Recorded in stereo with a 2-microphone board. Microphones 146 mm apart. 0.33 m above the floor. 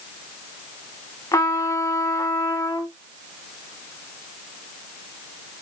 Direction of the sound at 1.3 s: 25° left (ahead or behind).